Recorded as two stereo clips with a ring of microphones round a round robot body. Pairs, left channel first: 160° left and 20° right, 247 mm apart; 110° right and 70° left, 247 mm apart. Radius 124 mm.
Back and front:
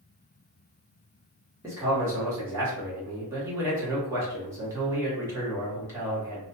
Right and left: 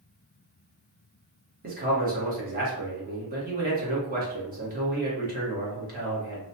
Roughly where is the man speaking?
Ahead left.